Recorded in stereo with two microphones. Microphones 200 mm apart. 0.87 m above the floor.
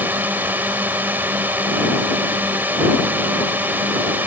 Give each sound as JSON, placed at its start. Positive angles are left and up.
{"t": 0.0, "sound": "a drone", "side_deg": -10}